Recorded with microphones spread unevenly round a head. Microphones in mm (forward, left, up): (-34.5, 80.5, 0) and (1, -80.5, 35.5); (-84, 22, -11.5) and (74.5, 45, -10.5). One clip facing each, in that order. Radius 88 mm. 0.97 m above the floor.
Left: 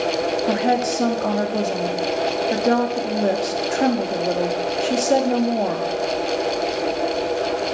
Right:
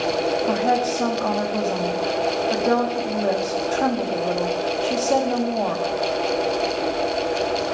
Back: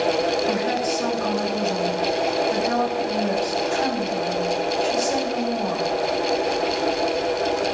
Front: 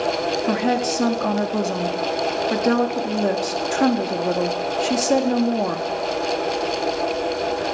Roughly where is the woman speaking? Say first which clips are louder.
Left 1 dB, front 2 dB; ahead left.